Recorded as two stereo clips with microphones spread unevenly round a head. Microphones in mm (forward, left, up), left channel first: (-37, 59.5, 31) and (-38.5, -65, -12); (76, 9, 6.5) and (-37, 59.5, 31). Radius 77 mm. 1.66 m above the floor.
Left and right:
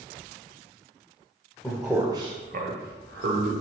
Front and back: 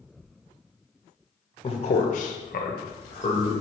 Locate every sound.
1.6 s a man speaking: 20° left, 0.6 m; by 3.5 s 85° right, 0.9 m